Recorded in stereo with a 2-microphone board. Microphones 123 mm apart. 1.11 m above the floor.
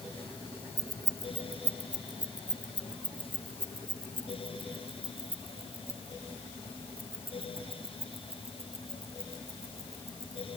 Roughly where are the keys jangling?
Right.